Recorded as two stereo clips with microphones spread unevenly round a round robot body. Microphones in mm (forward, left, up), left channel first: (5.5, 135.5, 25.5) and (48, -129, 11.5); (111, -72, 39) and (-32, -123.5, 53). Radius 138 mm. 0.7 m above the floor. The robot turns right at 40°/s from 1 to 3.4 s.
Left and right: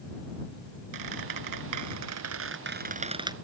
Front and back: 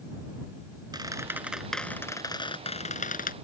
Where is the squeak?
95° right; by 3.3 s 5° right.